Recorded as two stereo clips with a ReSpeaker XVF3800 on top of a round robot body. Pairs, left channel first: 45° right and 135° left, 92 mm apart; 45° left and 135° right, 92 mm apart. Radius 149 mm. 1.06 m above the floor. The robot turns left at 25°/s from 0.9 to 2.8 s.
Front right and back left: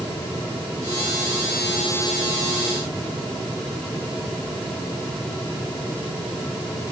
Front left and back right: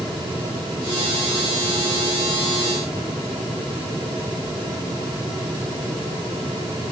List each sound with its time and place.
Only background noise.